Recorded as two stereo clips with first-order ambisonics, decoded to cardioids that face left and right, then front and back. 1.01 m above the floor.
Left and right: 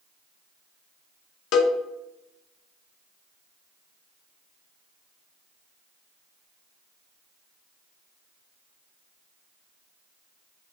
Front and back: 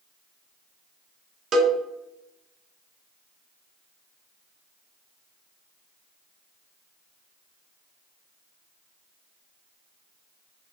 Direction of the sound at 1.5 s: 120° left.